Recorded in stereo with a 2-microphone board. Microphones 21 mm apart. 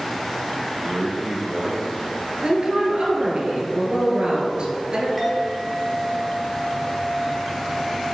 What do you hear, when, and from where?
0.8 s a man speaking: 35° right (ahead or behind), 2 m; by 2.1 s 20° right (ahead or behind), 2 m
2.4 s a woman speaking: 50° right (ahead or behind), 1.9 m
5.2 s a clink: centre (ahead or behind), 1.8 m